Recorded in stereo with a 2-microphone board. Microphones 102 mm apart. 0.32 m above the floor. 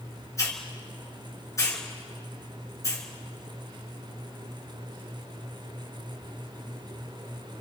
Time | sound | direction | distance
0.4 | a hiss | 30° left (ahead or behind) | 3.5 m